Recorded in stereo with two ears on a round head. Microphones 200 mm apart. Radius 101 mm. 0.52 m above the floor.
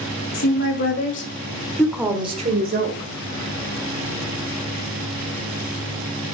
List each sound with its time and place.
0.3 s a woman speaking: 55° left (ahead or behind), 3 m; by 3.1 s 60° right (ahead or behind), 2 m